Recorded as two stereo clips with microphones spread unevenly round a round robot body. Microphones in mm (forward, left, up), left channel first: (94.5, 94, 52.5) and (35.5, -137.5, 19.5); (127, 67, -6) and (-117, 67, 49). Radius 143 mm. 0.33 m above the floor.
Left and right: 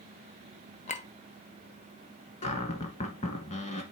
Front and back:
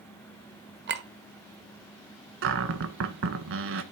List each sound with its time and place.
0.9 s a clink: 135° left, 1.0 m
2.4 s a cupboard door: 145° left, 1.3 m